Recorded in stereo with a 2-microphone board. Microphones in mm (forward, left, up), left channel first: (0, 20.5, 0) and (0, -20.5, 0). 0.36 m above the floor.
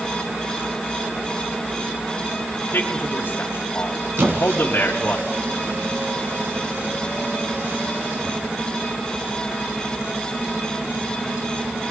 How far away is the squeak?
About 3 m.